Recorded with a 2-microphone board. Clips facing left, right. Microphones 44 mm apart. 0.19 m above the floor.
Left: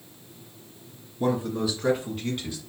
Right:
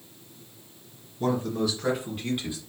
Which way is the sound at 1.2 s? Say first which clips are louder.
Left 1 dB; 15° left (ahead or behind).